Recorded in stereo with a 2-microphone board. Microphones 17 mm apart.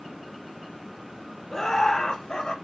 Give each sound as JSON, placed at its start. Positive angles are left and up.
{"t": 1.5, "sound": "laughter", "side_deg": 30, "distance_m": 1.2}